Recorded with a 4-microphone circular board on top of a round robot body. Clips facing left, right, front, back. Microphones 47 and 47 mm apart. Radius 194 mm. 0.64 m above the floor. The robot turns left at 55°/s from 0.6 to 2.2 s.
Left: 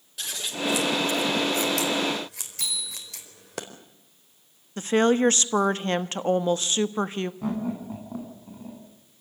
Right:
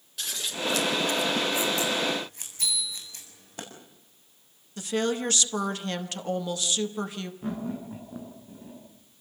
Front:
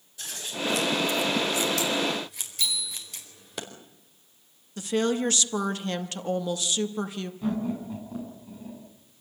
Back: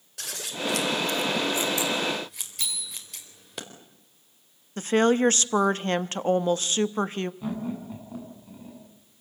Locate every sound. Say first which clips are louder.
0.2 s scissors: left 2 dB, even; straight behind, 4.5 m; by 3.6 s 90° left, 4.5 m
2.6 s a bicycle bell: right 1 dB, front 5 dB; 120° left, 8.5 m
4.8 s a woman speaking: left 7 dB, back 5 dB; 140° left, 1.2 m
7.4 s laughter: left 4 dB, front 3 dB; 100° left, 9.5 m